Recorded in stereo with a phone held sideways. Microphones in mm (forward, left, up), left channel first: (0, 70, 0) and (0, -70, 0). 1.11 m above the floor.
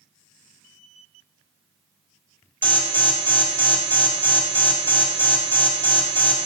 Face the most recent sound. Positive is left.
turn(degrees=15)  # may be behind; listen again after turning